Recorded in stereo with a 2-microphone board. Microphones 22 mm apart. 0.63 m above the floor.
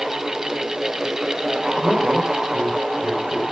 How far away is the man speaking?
About 4.5 m.